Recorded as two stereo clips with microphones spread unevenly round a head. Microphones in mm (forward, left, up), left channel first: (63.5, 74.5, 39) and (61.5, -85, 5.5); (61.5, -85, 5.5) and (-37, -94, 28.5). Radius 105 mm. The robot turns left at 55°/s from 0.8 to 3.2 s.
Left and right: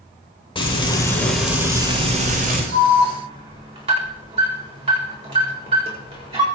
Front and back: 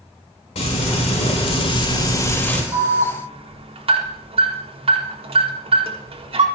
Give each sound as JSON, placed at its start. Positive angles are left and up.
{"t": 0.6, "sound": "frying", "azimuth_deg": 30, "distance_m": 9.0}
{"t": 2.7, "sound": "an alarm", "azimuth_deg": -125, "distance_m": 5.0}